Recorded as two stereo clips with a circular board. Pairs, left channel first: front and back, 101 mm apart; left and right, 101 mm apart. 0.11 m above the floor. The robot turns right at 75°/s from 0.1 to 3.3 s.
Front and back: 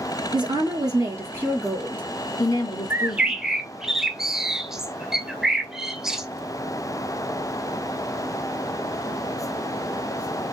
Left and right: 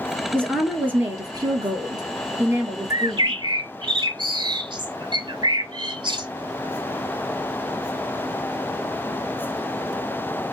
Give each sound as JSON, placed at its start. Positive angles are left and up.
{"t": 0.3, "sound": "a woman speaking", "azimuth_deg": 165, "distance_m": 1.6}
{"t": 2.9, "sound": "a bird", "azimuth_deg": -125, "distance_m": 0.5}